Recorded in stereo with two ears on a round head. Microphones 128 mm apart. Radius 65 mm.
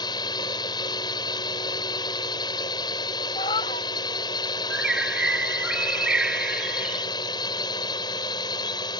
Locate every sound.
0.0 s a drone: 35° left (ahead or behind)
3.4 s a cat meowing: 40° left (ahead or behind)
4.7 s a bird: 5° right (ahead or behind)